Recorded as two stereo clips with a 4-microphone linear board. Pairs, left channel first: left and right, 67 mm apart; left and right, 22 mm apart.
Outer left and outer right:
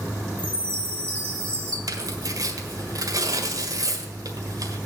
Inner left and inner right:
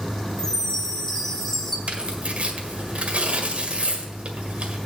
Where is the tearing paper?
65° right (ahead or behind), 1.7 m.